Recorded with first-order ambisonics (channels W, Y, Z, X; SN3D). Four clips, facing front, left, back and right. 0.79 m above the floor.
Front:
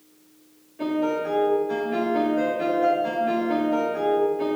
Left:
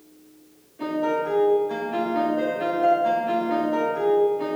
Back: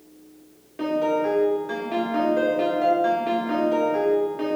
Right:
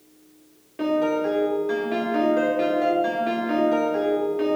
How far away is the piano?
About 2.5 m.